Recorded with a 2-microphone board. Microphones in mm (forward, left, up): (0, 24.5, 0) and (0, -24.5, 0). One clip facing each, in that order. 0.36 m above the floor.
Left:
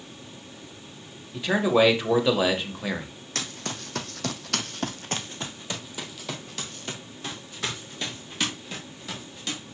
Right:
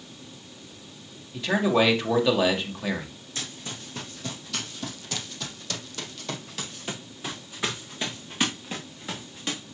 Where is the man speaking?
5° left (ahead or behind), 1.5 m.